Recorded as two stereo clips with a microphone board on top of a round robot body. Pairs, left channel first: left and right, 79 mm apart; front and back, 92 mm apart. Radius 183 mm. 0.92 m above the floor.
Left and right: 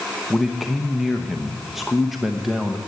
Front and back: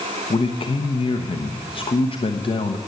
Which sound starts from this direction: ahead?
A man speaking, at 0.3 s.